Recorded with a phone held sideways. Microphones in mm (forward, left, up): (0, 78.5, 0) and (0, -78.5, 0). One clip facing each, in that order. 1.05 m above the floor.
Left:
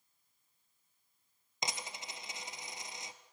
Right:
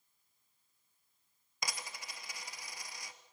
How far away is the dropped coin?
About 1.3 m.